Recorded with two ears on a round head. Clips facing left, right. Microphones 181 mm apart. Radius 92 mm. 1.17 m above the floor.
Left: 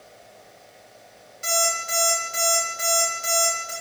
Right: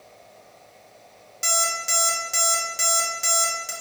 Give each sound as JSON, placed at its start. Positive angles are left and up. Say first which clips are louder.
{"t": 1.4, "sound": "an alarm clock", "louder": "left 4 dB", "side_deg": -60, "distance_m": 0.8}